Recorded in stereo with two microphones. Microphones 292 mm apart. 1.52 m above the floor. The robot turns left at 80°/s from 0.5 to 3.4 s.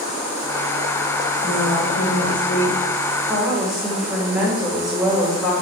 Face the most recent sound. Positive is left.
turn(degrees=0)